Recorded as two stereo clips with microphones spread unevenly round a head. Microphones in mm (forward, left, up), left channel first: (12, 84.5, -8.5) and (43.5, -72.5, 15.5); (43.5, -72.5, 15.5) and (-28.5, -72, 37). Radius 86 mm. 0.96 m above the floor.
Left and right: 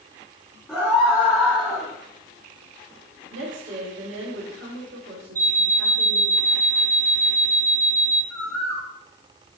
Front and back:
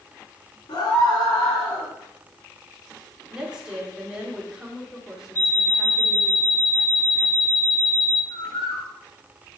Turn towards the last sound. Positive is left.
turn(degrees=15)